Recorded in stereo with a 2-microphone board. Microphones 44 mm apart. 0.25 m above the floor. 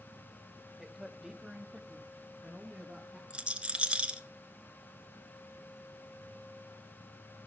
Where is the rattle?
25° right (ahead or behind), 1.1 m.